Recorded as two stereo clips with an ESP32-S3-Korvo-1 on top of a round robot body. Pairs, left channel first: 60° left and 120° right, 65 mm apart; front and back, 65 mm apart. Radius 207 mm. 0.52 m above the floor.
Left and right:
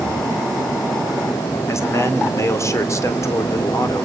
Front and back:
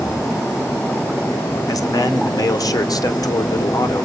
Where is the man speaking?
20° left, 2.5 m.